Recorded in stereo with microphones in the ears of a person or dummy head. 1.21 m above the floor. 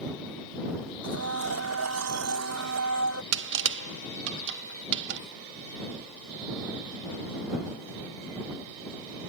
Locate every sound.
1.0 s a blender: 80° right
3.3 s crushing: 65° right (ahead or behind)